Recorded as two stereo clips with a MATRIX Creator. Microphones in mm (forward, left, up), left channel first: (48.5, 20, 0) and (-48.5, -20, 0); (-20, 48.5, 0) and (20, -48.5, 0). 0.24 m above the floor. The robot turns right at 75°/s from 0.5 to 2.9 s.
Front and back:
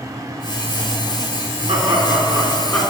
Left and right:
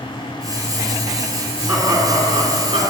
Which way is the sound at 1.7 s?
145° right.